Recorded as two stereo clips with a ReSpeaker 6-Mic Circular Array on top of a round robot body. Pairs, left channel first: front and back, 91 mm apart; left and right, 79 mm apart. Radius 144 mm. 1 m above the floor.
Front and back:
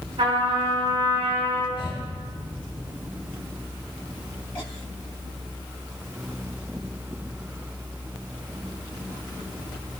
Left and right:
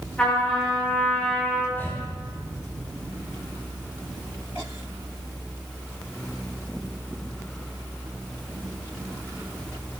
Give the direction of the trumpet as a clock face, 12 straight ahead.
6 o'clock.